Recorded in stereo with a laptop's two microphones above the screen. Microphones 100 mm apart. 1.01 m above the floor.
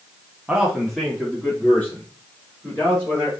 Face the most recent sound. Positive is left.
turn(degrees=25)  # may be behind; listen again after turning